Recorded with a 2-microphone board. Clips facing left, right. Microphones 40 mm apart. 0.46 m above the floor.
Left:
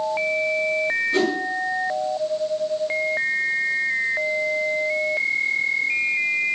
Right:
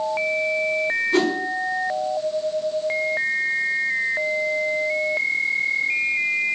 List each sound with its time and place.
1.1 s a whoosh: 40° right (ahead or behind), 3.5 m